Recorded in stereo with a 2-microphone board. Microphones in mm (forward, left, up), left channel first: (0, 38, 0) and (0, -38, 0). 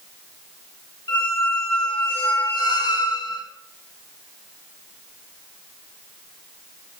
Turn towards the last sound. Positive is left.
turn(degrees=85)